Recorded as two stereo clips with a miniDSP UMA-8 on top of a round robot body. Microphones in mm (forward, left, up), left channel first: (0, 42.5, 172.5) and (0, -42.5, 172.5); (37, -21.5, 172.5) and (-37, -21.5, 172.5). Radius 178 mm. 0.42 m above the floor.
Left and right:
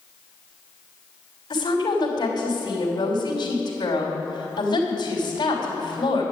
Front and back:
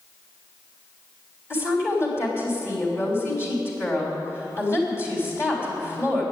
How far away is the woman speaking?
About 3 m.